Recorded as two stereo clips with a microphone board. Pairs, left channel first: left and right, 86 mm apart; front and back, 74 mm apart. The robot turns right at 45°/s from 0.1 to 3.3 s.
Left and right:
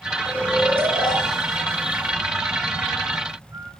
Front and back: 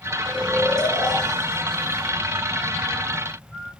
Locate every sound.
0.2 s snoring: 140° left, 1.7 m; by 3.7 s 80° right, 1.7 m